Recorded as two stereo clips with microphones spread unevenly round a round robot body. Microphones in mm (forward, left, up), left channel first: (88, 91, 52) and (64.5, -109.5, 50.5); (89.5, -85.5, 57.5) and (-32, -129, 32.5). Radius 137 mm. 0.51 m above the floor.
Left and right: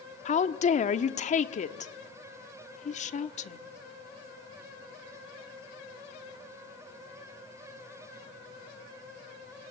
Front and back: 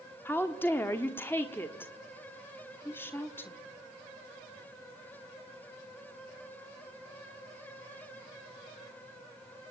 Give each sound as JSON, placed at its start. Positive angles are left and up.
{"t": 0.2, "sound": "a woman speaking", "azimuth_deg": 100, "distance_m": 1.0}